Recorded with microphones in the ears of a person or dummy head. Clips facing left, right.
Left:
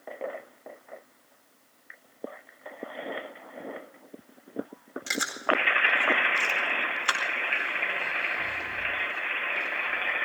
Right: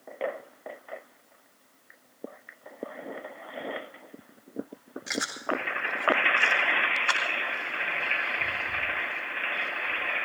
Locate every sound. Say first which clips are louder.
5.1 s chewing: left 2 dB; 50° left (ahead or behind), 4.5 m